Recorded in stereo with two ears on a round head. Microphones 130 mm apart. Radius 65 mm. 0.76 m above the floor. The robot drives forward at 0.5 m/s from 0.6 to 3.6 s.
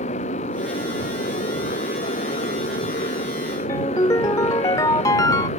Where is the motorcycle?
50° left (ahead or behind).